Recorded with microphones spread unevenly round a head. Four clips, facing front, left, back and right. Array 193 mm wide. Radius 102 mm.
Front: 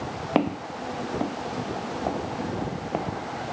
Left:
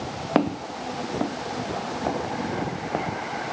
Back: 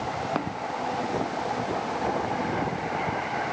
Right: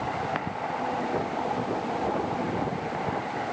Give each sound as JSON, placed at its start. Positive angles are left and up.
{"t": 0.3, "sound": "footsteps", "azimuth_deg": 55}